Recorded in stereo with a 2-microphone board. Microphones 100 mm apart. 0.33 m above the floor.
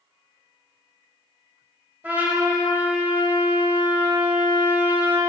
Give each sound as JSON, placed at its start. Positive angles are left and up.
{"t": 2.0, "sound": "a trumpet", "side_deg": -15, "distance_m": 1.1}